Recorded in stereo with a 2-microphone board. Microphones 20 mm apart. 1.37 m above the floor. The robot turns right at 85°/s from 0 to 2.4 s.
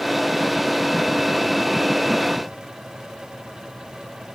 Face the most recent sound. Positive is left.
No sound to turn to.